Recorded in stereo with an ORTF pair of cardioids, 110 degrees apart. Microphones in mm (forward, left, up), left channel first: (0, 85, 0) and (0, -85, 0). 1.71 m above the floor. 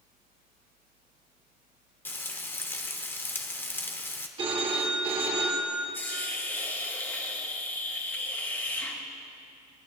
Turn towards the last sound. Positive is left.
turn(degrees=15)